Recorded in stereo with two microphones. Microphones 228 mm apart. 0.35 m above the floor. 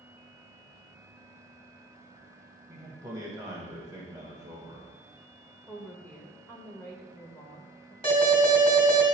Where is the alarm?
25° left (ahead or behind), 2.5 m.